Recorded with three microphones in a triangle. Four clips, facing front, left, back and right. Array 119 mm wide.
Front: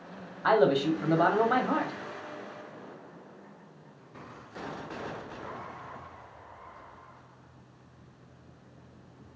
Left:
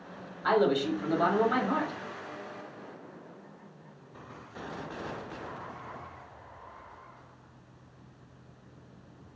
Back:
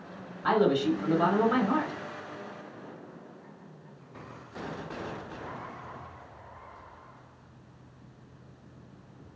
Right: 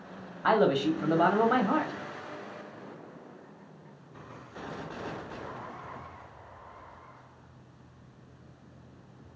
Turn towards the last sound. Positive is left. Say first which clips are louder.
# right 1 dB, front 1 dB
turn(degrees=-50)